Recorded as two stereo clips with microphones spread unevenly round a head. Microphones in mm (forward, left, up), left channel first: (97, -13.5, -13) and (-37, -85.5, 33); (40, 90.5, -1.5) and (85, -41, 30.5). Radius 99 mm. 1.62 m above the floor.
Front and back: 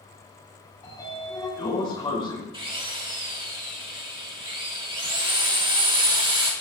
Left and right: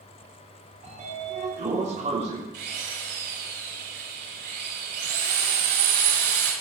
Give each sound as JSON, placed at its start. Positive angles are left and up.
{"t": 0.8, "sound": "a sliding door", "azimuth_deg": -35, "distance_m": 7.5}
{"t": 2.5, "sound": "a drill", "azimuth_deg": -95, "distance_m": 6.0}